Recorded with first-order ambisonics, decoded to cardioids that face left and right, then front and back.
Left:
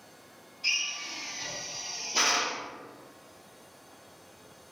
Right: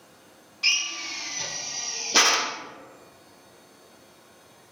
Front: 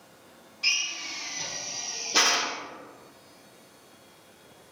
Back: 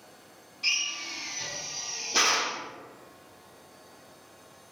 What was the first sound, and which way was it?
A drill, 80° right.